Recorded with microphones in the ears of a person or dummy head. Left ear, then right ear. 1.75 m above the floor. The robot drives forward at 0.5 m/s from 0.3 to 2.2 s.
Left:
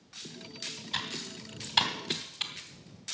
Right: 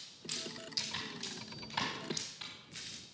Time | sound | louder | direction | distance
0.9 | typing on a keyboard | left 6 dB | 25° left (ahead or behind) | 3 m